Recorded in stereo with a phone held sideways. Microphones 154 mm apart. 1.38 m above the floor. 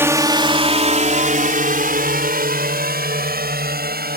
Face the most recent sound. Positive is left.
turn(degrees=-85)